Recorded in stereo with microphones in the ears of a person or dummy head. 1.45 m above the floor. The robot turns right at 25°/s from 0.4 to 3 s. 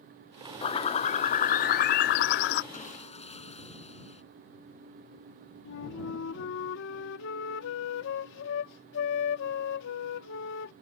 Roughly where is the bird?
Ahead left.